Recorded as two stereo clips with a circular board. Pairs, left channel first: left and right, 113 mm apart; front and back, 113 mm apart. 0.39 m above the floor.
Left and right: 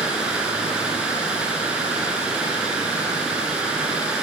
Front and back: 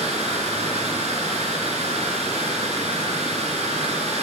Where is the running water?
170° right, 2 m.